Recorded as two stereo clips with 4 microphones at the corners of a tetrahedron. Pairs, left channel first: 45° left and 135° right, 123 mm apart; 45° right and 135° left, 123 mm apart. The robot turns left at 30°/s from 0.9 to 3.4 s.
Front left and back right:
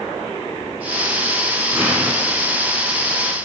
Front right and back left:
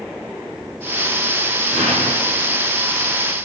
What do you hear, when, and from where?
1.7 s an explosion: 150° left, 5.5 m; by 2.6 s 125° left, 5.5 m